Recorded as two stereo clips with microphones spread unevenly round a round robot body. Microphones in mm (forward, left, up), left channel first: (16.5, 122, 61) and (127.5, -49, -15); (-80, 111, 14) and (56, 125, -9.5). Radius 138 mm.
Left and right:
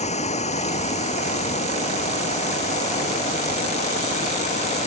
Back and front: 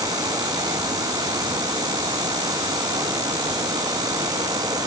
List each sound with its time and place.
0.0 s running water: 70° left